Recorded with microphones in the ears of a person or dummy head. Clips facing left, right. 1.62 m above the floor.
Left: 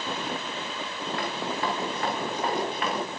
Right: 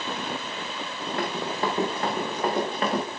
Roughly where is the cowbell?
I don't hear a cowbell.